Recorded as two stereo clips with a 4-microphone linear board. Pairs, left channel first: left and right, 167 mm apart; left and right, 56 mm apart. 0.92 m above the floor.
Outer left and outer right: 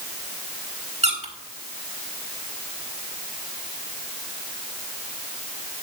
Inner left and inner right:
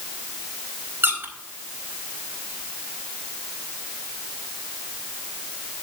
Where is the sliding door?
No sliding door in this recording.